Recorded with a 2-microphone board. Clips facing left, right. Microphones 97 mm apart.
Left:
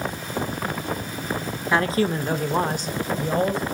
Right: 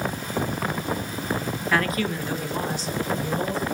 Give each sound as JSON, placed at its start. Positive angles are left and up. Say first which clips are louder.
{"t": 1.7, "sound": "a man speaking", "louder": "left 4 dB", "side_deg": 20, "distance_m": 0.7}